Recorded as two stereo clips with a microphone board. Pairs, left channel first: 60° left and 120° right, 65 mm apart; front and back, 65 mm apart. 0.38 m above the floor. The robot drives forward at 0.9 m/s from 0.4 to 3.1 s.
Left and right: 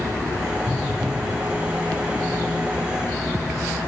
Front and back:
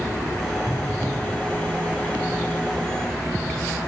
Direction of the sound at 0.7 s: 105° left.